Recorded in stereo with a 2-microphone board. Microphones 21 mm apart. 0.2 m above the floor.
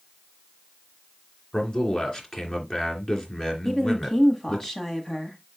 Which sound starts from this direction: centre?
A woman speaking, at 3.6 s.